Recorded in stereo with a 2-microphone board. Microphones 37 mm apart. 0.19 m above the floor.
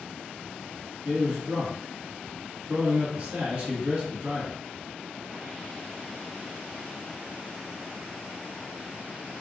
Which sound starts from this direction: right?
A man speaking, at 1.1 s.